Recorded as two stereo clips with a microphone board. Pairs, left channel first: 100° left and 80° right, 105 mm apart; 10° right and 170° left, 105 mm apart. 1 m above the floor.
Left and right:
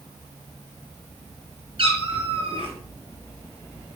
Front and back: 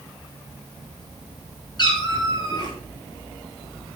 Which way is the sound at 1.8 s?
55° right.